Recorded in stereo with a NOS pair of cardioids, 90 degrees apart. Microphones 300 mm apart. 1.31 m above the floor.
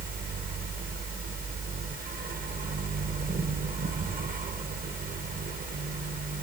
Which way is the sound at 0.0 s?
30° right.